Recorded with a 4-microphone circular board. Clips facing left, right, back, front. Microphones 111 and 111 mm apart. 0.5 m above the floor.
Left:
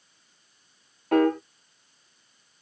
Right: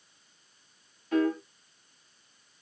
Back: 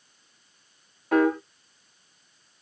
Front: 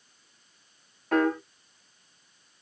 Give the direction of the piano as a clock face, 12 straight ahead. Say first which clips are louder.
Left 5 dB, back 3 dB; 9 o'clock.